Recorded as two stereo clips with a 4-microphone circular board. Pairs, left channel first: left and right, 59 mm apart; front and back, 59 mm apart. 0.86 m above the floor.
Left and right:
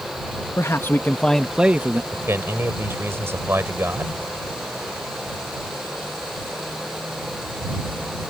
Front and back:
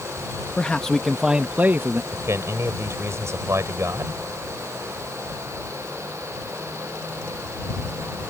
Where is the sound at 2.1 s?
140° right.